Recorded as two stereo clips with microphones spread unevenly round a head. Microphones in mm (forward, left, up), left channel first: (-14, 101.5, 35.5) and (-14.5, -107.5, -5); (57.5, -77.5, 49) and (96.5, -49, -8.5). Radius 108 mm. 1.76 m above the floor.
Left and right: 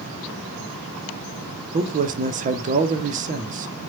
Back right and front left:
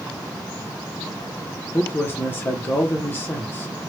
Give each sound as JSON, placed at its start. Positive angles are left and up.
{"t": 1.7, "sound": "a man speaking", "azimuth_deg": -150, "distance_m": 0.5}